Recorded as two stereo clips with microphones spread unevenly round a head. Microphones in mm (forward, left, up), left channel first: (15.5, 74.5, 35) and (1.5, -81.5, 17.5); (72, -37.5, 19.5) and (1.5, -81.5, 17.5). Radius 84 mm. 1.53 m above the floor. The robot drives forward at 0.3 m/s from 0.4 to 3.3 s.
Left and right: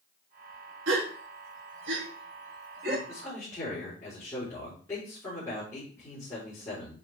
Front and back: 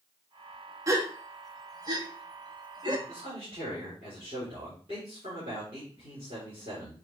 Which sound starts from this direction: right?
A gasp, at 0.9 s.